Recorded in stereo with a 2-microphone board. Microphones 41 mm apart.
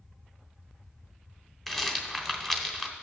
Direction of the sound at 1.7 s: 10° left (ahead or behind).